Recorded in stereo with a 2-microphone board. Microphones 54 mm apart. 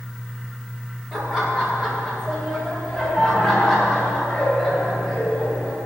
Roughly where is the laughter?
Centre.